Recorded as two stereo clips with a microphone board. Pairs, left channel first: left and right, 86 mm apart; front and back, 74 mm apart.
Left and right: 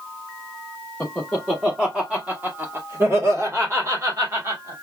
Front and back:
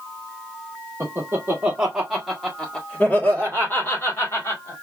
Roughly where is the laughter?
Behind.